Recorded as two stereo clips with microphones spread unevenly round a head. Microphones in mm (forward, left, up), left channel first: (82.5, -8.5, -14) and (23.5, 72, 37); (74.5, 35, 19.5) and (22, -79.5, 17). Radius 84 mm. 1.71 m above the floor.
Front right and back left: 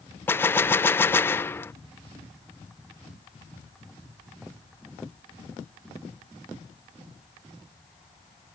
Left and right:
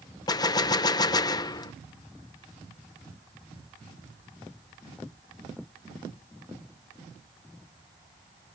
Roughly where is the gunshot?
Ahead left.